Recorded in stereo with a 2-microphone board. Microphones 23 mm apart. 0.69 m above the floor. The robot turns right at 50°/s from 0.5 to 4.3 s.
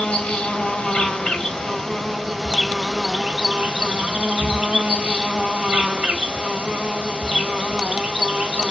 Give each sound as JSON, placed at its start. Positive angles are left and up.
{"t": 0.0, "sound": "an insect", "azimuth_deg": 80, "distance_m": 1.4}